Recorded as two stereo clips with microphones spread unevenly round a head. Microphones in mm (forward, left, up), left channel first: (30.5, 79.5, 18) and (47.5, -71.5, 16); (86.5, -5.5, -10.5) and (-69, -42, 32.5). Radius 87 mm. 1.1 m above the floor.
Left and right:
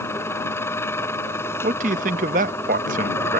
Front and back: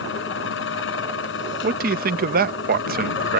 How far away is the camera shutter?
No camera shutter in this recording.